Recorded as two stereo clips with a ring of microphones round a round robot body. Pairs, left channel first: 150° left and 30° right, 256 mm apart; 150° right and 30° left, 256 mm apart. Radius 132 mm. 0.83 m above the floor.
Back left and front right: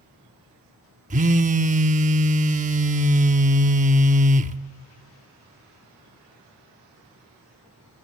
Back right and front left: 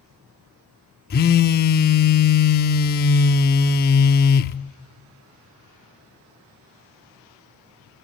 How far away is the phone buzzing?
About 0.8 m.